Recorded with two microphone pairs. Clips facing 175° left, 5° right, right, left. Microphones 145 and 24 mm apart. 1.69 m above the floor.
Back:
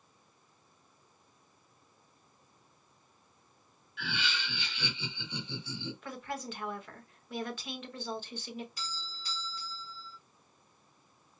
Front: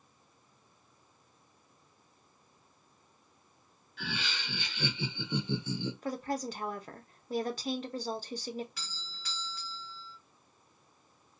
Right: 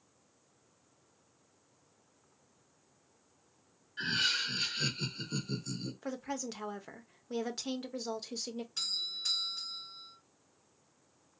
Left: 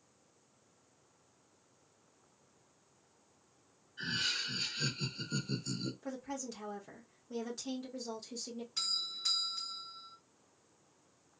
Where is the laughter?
55° right, 1.4 m; by 5.9 s 20° left, 0.8 m.